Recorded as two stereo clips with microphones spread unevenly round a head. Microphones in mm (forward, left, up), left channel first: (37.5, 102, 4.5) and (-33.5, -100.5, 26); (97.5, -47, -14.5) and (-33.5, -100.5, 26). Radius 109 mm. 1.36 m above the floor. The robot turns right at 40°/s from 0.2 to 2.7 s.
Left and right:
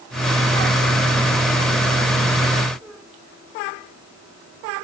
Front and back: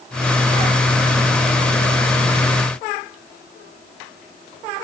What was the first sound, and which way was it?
Only background noise.